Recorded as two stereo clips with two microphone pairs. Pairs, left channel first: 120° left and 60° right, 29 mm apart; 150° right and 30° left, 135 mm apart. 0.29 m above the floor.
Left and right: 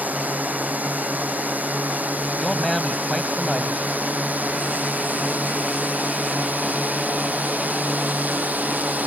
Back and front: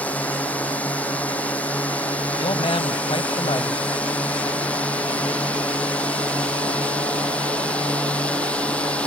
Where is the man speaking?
170° right.